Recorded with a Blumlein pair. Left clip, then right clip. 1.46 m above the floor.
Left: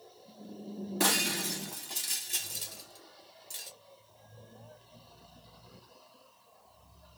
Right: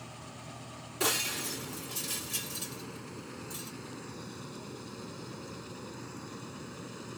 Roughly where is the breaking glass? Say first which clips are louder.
Left 2 dB; ahead.